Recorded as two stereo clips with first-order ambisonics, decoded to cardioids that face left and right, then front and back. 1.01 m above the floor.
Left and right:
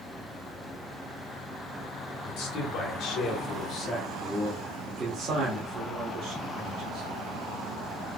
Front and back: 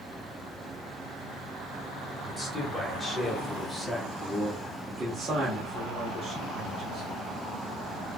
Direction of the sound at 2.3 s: 70° left.